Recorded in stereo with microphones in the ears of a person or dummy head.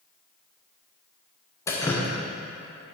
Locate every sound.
1.7 s dripping: 20° left (ahead or behind), 0.7 m